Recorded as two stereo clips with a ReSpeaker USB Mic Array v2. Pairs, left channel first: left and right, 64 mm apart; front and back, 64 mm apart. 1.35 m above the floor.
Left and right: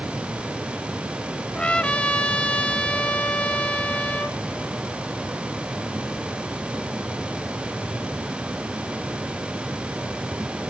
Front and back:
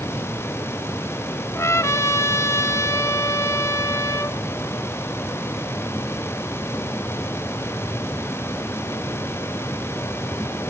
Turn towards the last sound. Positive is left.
turn(degrees=20)